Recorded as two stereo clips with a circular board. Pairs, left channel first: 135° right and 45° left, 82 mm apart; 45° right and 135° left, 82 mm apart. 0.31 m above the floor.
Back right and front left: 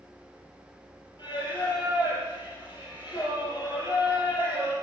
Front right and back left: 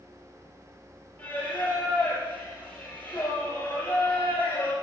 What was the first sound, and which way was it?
Singing, 110° right.